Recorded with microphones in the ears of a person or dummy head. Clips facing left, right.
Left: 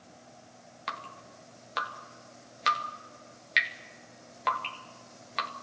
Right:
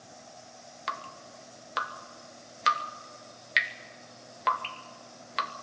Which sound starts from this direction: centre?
Dripping, at 0.9 s.